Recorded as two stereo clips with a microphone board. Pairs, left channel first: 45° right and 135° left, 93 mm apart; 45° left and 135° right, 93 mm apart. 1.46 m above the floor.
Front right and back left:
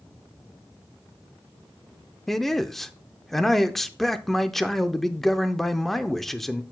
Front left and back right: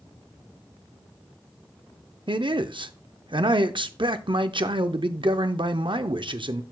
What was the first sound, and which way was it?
A man speaking, 130° right.